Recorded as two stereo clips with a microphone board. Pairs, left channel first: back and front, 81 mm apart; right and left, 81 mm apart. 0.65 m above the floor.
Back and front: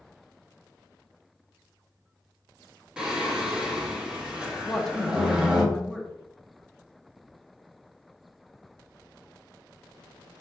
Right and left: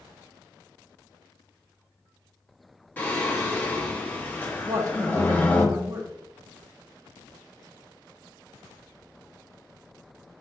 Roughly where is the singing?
Ahead right.